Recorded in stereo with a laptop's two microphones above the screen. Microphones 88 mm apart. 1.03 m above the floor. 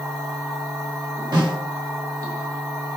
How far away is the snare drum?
About 1.1 m.